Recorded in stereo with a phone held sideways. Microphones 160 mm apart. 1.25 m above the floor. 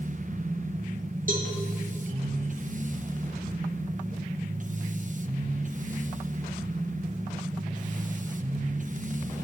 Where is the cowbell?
55° right (ahead or behind), 2.5 m.